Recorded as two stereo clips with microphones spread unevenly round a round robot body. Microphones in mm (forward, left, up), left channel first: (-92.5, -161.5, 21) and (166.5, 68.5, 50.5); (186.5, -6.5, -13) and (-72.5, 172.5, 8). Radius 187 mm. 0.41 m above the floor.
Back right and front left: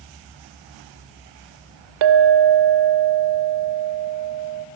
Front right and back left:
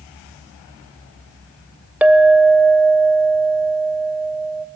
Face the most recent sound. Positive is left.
turn(degrees=60)